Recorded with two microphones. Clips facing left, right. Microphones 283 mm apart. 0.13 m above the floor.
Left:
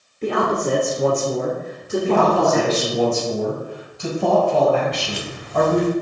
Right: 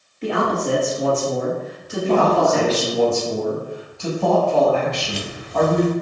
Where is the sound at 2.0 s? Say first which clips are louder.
Right 1 dB; 15° left (ahead or behind), 1.9 m.